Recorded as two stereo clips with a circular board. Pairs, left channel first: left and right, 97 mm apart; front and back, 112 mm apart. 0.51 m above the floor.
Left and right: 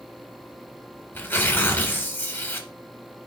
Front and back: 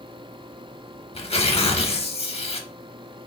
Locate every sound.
1.1 s tearing paper: 20° left, 0.6 m